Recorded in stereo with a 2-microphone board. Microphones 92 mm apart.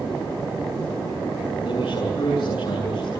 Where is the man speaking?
45° left (ahead or behind), 7.5 m.